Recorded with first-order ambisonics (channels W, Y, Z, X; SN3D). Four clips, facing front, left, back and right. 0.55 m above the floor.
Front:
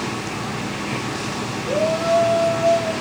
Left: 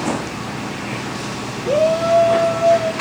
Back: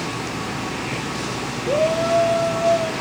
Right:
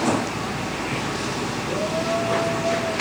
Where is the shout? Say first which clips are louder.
Left 11 dB, back 1 dB; 110° left, 3 m.